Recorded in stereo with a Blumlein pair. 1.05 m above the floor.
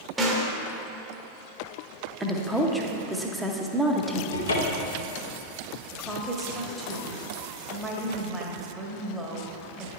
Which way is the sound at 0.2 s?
10° right.